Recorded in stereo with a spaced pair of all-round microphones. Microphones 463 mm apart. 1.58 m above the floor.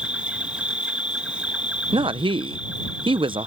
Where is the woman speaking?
10° right (ahead or behind).